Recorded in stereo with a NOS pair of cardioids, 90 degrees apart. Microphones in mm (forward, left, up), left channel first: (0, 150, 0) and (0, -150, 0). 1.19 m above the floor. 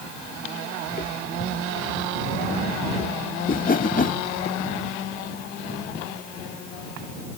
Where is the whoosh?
30° left.